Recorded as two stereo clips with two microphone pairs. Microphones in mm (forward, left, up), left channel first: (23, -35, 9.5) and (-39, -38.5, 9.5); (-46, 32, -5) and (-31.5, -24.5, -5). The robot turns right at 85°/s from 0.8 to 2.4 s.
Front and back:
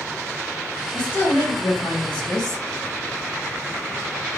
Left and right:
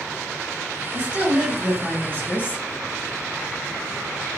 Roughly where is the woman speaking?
Ahead right.